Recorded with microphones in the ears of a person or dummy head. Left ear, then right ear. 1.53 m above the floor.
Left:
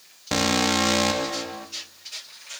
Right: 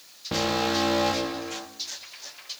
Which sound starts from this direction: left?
An alarm, at 0.3 s.